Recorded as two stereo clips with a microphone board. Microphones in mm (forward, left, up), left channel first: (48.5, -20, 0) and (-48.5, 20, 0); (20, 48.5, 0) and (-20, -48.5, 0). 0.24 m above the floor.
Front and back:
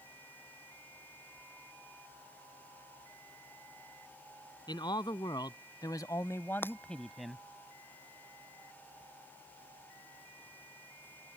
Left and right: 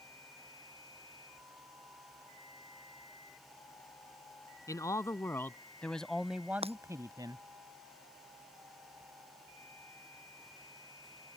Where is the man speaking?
15° left; by 7.4 s 120° right.